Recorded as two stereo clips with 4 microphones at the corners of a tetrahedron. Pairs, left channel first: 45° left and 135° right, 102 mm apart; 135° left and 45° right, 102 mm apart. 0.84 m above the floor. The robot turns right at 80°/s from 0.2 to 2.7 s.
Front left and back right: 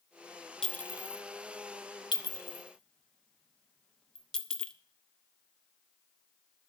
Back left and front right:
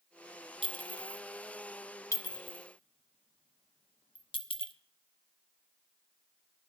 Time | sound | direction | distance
0.6 | a clink | 40° right | 0.8 m